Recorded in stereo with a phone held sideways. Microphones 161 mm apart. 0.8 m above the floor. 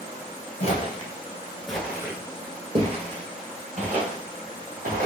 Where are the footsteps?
40° left (ahead or behind), 1.0 m; by 5.1 s 60° right (ahead or behind), 2.5 m.